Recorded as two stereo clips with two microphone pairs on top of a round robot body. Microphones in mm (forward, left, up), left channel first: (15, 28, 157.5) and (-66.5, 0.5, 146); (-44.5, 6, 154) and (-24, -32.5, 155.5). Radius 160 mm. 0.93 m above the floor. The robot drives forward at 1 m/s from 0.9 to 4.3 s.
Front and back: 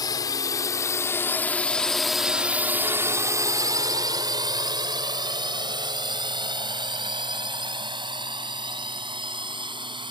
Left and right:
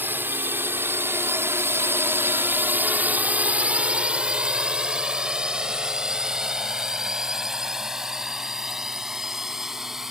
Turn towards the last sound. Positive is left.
turn(degrees=-140)